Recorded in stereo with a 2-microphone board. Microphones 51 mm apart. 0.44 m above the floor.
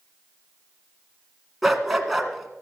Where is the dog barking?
Centre (ahead or behind), 1.7 m.